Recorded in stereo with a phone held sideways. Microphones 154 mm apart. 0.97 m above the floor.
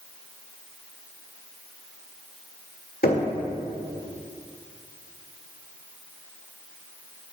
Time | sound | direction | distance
3.0 | knocking | 85° left | 1.9 m